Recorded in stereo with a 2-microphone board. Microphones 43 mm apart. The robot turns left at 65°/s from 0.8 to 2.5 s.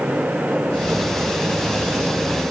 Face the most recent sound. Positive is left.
No sound to turn to.